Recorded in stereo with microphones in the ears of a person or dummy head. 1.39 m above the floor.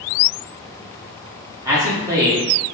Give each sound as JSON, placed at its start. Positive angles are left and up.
{"t": 1.6, "sound": "a man speaking", "side_deg": -15, "distance_m": 0.7}